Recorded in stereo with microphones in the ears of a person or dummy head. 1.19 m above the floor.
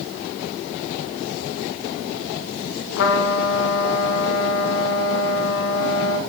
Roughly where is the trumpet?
Left.